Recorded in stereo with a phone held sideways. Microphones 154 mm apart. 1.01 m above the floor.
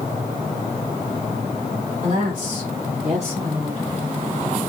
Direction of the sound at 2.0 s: 65° right (ahead or behind).